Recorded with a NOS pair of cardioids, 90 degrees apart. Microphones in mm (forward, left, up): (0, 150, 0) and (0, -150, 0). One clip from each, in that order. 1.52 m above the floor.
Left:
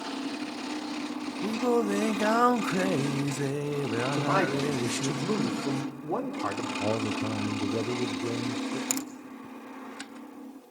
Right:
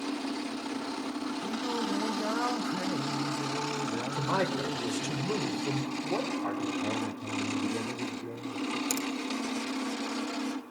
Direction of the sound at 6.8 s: 35° left.